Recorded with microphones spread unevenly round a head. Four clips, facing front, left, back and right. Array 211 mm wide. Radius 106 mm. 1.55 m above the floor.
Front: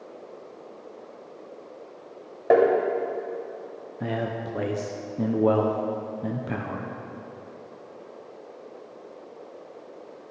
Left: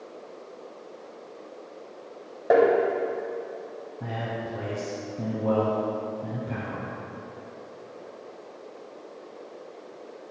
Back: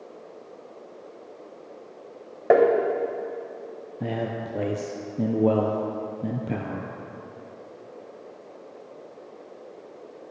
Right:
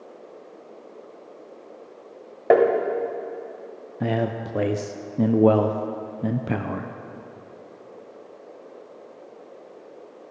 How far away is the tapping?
About 1.5 m.